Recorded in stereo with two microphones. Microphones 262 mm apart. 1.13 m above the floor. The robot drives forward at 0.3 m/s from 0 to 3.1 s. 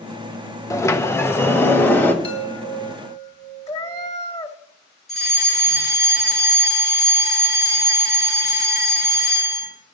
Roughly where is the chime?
Left.